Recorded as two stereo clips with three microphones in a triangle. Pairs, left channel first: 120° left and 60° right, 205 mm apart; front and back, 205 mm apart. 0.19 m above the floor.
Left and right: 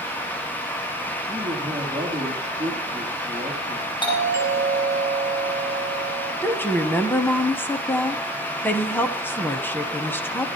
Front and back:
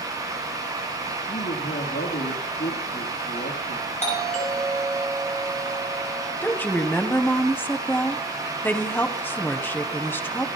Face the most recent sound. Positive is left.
turn(degrees=60)